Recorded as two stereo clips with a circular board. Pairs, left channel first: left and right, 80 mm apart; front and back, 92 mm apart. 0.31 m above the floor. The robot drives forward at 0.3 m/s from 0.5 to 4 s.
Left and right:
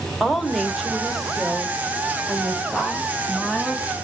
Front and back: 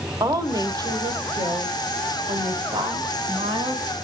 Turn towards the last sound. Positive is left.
turn(degrees=-175)